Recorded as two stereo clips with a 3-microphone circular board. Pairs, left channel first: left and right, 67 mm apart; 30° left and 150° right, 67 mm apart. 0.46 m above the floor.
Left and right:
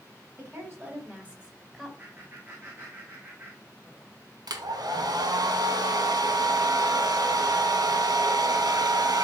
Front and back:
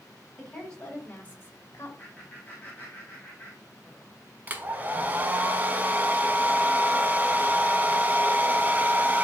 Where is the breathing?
I don't hear breathing.